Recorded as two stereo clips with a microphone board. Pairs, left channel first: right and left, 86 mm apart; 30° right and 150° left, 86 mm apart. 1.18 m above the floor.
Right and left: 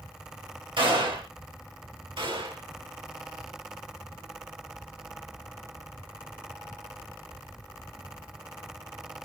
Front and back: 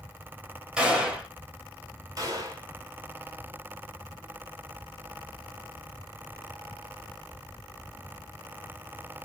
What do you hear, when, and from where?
0.8 s a gunshot: 70° left, 1.9 m
2.2 s a gunshot: 105° left, 1.6 m